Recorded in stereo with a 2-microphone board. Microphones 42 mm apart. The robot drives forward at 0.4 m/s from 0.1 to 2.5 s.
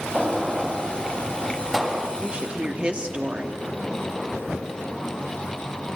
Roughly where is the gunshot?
Centre.